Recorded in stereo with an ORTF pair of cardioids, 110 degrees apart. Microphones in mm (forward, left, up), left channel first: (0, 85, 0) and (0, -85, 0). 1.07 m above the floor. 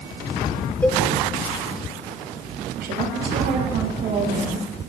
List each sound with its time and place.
0.8 s a cowbell: 10° left, 1.4 m
2.8 s a woman speaking: 65° right, 7.5 m